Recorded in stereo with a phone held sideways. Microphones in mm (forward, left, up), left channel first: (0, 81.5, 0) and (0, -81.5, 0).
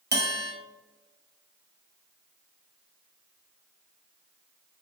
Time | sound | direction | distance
0.1 | a bell | 75° right (ahead or behind) | 0.8 m